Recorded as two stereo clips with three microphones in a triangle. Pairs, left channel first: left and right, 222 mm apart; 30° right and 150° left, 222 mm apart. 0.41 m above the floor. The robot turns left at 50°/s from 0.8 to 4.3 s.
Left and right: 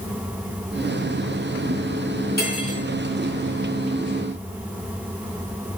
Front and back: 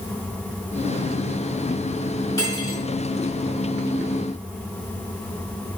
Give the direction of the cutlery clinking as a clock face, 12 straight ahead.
10 o'clock.